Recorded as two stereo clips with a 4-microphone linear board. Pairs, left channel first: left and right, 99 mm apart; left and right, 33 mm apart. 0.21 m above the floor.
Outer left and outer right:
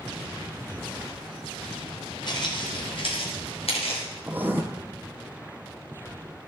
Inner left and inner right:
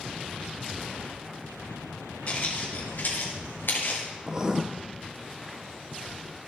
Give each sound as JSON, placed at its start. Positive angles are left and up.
{"t": 2.3, "sound": "footsteps", "side_deg": 45, "distance_m": 3.0}
{"t": 4.3, "sound": "writing", "side_deg": -20, "distance_m": 0.9}